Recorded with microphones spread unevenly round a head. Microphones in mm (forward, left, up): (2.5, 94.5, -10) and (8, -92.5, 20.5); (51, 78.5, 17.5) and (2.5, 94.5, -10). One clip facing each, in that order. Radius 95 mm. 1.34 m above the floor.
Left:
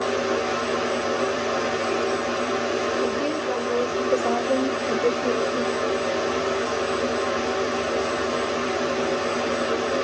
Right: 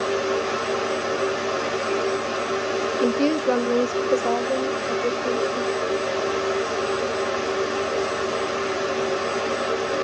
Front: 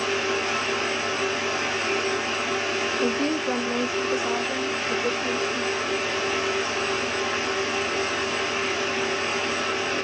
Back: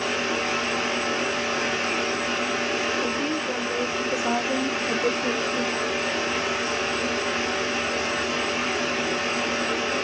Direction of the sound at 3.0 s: 80° right.